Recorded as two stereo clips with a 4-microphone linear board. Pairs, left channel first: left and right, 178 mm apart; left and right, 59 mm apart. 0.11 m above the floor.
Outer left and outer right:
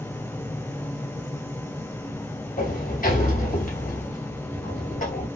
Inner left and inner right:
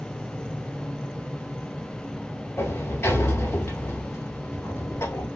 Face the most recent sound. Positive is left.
turn(degrees=50)  # may be behind; listen again after turning